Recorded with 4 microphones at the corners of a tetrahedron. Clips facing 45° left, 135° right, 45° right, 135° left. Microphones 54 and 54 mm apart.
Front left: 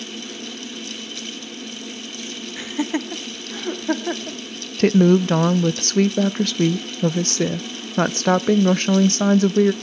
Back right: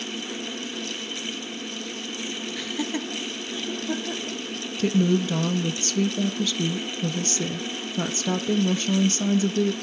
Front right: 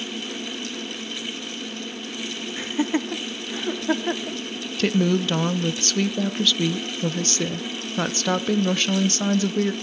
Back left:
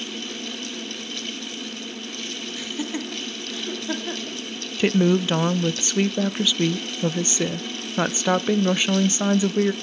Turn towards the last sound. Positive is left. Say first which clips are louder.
# front left 7 dB, back left 2 dB
turn(degrees=60)